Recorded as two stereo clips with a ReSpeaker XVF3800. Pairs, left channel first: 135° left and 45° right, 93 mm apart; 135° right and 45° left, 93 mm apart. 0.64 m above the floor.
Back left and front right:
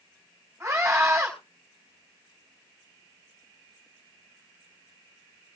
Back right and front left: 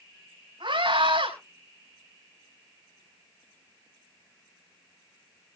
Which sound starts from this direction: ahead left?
A scream, at 0.6 s.